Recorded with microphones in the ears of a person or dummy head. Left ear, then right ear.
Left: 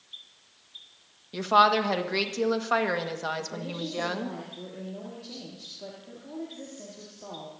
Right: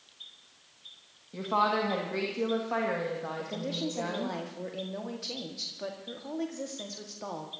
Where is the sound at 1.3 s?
80° left, 1.8 m.